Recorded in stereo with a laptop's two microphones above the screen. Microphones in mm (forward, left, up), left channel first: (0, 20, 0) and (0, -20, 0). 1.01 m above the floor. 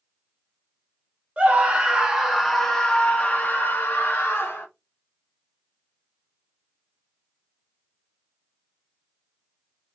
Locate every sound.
1.4 s a scream: 30° right (ahead or behind), 1.0 m; by 4.7 s 55° left (ahead or behind), 1.2 m